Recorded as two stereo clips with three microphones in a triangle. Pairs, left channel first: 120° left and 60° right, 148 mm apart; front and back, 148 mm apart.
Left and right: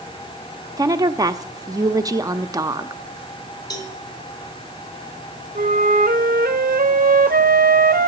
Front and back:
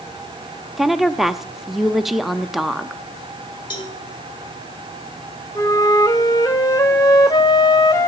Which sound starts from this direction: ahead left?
A cowbell, at 3.7 s.